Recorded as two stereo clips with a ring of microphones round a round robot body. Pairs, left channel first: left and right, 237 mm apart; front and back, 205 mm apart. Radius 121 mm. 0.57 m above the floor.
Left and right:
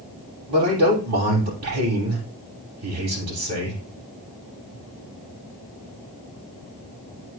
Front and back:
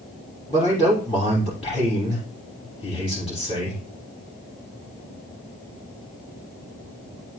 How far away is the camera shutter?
No camera shutter in this recording.